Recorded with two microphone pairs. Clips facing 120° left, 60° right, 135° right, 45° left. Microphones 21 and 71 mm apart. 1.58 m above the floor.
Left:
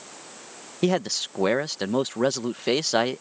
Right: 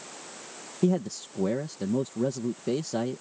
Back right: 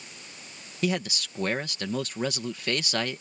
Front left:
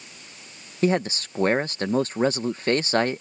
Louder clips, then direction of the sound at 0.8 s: Left 3 dB, front left 6 dB; 95° left.